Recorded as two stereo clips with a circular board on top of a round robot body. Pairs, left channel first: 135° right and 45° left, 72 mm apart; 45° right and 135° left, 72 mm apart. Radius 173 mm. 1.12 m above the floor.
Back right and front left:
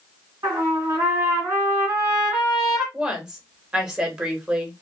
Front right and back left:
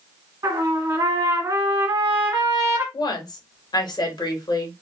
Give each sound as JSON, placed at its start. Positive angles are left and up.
{"t": 0.4, "sound": "a trumpet", "azimuth_deg": 100, "distance_m": 2.0}
{"t": 2.9, "sound": "a woman speaking", "azimuth_deg": -35, "distance_m": 1.8}